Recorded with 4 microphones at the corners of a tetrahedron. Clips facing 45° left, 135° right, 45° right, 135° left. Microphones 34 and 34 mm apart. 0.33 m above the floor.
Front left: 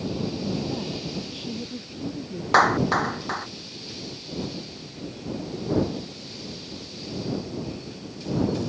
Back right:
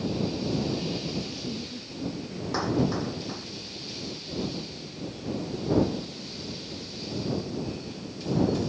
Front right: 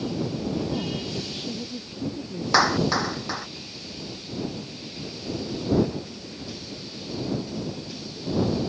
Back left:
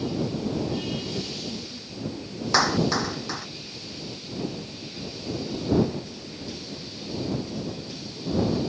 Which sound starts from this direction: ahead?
A woman speaking, at 0.4 s.